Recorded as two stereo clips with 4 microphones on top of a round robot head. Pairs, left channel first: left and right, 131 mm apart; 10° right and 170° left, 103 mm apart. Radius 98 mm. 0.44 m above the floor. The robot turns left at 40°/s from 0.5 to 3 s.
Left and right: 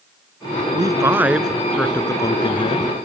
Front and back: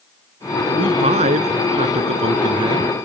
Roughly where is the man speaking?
Behind right.